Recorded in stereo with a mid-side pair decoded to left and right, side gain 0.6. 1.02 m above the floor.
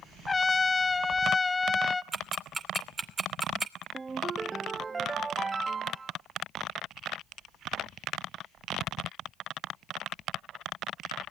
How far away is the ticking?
About 2.5 m.